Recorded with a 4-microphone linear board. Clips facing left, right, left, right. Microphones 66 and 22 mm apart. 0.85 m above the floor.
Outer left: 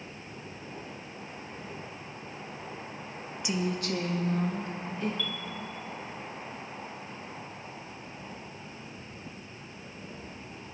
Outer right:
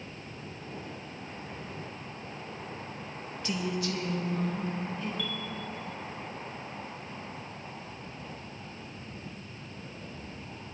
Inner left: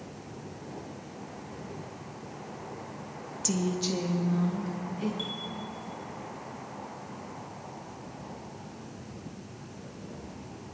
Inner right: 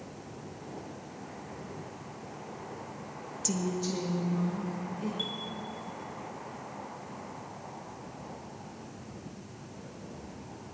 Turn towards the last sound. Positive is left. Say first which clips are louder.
# even, even
turn(degrees=-5)  # may be behind; listen again after turning